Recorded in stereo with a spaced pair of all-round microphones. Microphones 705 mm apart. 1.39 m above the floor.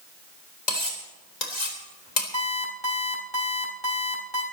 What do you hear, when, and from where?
0.7 s cutlery clinking: 75° left (ahead or behind), 3.5 m
2.3 s an alarm clock: 40° left (ahead or behind), 4.5 m